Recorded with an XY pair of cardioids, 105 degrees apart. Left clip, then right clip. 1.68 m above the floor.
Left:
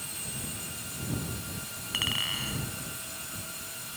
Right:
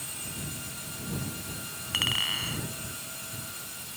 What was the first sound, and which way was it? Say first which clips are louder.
A clink: right 2 dB; 15° right.